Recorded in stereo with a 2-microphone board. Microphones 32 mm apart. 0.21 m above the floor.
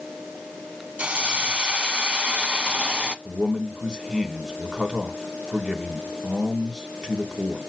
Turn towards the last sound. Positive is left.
turn(degrees=-30)  # may be behind; listen again after turning